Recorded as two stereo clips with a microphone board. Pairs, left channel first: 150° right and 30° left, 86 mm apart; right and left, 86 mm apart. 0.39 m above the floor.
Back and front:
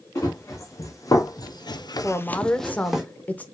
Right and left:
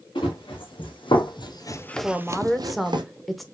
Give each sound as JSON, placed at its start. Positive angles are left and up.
{"t": 0.1, "sound": "running footsteps", "azimuth_deg": -95, "distance_m": 2.5}
{"t": 2.0, "sound": "a woman speaking", "azimuth_deg": 180, "distance_m": 0.8}